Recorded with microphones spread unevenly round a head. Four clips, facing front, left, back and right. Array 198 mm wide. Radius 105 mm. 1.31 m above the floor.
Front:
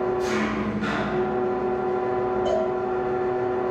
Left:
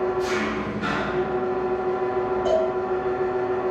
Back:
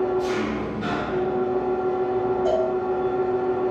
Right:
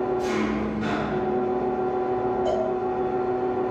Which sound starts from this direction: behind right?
An engine running, at 0.0 s.